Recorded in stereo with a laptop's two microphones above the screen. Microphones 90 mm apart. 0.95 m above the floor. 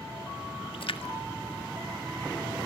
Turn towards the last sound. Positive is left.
turn(degrees=70)  # may be behind; listen again after turning